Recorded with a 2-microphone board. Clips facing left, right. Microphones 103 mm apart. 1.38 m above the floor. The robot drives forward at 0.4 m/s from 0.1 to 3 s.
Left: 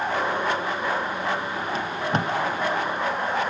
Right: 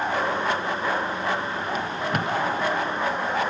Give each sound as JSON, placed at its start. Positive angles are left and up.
{"t": 1.8, "sound": "tape being pulled", "side_deg": 30, "distance_m": 0.7}